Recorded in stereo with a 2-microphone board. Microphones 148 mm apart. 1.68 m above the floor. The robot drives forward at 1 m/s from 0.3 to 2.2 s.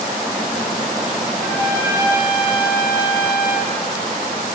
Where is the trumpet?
85° left, 9 m.